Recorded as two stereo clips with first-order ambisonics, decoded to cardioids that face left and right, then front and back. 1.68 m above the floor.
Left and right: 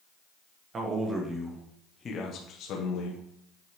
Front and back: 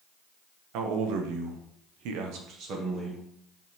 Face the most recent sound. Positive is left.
turn(degrees=105)